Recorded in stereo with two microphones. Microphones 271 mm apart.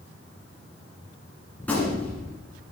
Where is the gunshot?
5° left (ahead or behind), 2 m.